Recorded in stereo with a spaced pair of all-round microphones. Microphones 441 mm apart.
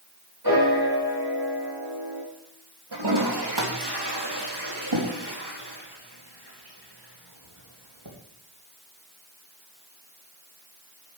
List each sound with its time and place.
0.4 s a piano: 50° right (ahead or behind), 4.5 m
2.9 s a toilet flushing: 60° right (ahead or behind), 2.5 m